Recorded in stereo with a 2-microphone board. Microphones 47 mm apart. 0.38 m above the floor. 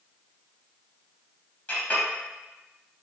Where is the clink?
30° left (ahead or behind), 1.5 m.